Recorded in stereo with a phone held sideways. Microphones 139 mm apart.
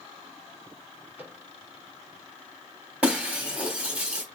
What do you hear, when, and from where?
1.2 s a microwave: 15° right (ahead or behind), 3.5 m
3.0 s breaking glass: 10° right (ahead or behind), 3 m